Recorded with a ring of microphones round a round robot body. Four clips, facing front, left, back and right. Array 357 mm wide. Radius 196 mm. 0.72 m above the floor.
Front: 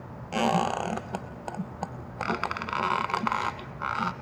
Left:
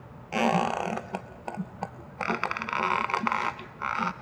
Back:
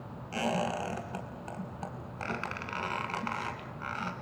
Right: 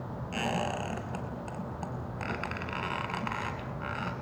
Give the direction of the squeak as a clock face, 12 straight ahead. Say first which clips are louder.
Left 8 dB, front 6 dB; 10 o'clock.